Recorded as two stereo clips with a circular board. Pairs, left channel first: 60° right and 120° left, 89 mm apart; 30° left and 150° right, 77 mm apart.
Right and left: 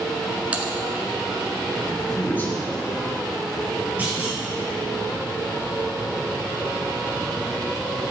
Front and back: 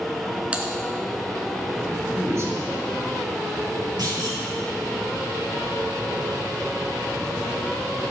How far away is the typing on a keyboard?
About 1.0 m.